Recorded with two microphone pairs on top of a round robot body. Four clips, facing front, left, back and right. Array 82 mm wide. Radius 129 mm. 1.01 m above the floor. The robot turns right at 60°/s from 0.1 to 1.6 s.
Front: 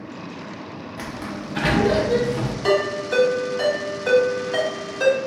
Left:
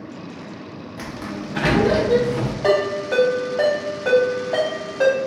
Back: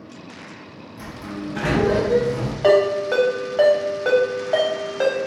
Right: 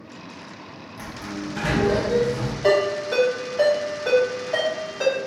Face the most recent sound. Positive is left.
turn(degrees=160)